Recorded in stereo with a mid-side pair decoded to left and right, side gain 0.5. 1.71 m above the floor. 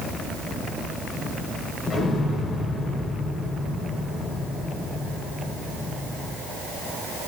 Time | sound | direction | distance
1.9 | an explosion | 25° left | 1.5 m